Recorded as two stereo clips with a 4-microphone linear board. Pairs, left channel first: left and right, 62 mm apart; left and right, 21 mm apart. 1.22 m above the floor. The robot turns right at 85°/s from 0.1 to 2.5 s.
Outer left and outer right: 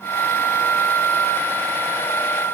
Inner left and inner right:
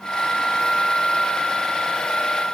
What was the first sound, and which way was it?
Only background noise.